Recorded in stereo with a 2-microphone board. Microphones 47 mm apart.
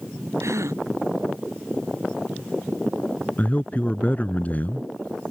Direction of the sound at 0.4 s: 85° right.